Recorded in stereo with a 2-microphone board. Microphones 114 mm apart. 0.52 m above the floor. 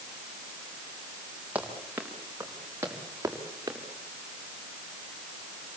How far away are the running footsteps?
About 5 m.